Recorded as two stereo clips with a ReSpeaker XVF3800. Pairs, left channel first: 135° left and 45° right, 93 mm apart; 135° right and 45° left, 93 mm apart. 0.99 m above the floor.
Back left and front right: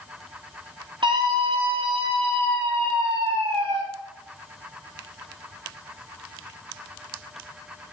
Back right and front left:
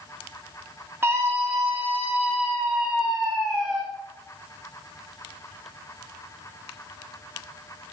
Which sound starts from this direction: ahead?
A scream, at 1.0 s.